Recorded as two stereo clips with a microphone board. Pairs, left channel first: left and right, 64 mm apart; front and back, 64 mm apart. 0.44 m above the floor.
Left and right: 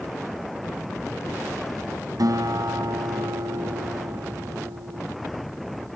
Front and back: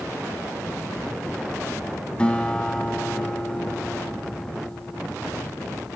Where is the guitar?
75° right, 1.3 m.